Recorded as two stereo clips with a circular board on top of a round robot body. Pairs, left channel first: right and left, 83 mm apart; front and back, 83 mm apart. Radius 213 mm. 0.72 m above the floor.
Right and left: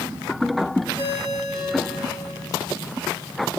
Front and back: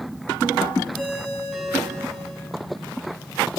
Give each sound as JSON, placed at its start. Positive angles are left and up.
{"t": 0.9, "sound": "a ringtone", "azimuth_deg": 90, "distance_m": 7.0}